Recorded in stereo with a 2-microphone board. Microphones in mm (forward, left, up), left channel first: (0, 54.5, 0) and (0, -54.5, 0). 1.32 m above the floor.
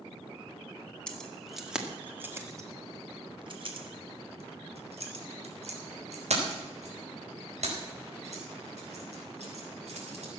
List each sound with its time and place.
1.1 s keys jangling: 10° left (ahead or behind), 2 m; by 10.3 s 80° right, 7 m